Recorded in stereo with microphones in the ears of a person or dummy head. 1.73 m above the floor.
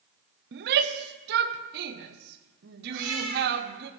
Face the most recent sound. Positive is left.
turn(degrees=-75)  # may be behind; listen again after turning